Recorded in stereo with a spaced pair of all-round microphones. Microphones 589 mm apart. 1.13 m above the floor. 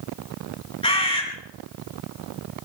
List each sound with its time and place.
0.8 s a bird: 10° left (ahead or behind), 4 m